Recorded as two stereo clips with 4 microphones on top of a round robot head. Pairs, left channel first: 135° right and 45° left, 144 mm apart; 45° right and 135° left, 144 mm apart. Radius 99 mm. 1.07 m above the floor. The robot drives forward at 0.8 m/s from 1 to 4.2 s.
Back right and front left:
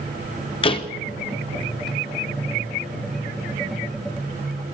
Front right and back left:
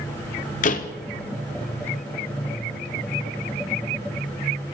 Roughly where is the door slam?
Right.